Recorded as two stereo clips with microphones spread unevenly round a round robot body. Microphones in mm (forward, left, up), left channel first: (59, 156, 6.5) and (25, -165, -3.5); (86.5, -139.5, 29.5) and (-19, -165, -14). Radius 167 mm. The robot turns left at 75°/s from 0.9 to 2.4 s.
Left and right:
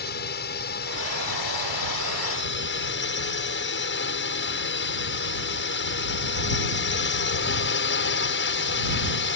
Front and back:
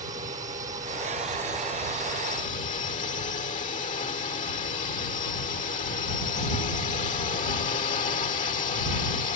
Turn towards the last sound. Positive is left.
turn(degrees=30)